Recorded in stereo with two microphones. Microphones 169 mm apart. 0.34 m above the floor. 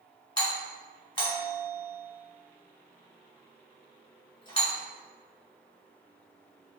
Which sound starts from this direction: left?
A doorbell, at 0.4 s.